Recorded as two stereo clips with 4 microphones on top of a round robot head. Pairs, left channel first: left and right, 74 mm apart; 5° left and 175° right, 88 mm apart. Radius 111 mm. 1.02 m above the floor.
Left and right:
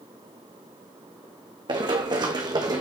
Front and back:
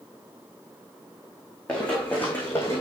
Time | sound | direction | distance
1.7 | running footsteps | 80° right | 3 m